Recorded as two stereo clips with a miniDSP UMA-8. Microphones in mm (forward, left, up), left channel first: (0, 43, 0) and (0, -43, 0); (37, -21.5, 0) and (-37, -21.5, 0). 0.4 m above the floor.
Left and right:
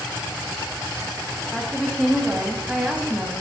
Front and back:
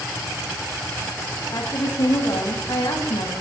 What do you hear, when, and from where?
1.5 s a woman speaking: 10° left, 3 m; by 3.3 s 20° right, 3.5 m